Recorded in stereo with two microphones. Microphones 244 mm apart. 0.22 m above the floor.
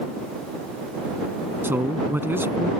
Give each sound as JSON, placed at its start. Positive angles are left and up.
{"t": 1.6, "sound": "a man speaking", "side_deg": -10}